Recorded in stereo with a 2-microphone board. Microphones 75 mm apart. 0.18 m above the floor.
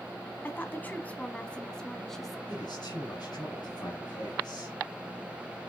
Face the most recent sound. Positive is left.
turn(degrees=70)  # may be behind; listen again after turning